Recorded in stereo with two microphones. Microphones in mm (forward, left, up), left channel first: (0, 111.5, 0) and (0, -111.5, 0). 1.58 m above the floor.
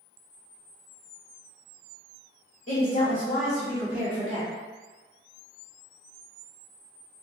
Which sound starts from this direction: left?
A woman speaking, at 2.7 s.